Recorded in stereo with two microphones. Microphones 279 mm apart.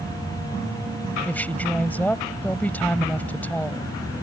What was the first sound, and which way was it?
A woman speaking, 5° left (ahead or behind).